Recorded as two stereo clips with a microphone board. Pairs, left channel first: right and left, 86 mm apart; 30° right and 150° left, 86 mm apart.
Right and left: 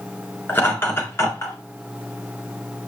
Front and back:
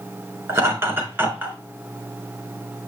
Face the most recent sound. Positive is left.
turn(degrees=-140)